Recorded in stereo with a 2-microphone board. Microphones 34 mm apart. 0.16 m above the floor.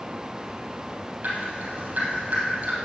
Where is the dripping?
65° right (ahead or behind), 3 m.